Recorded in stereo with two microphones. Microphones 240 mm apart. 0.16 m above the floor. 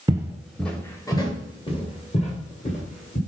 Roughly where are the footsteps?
Centre.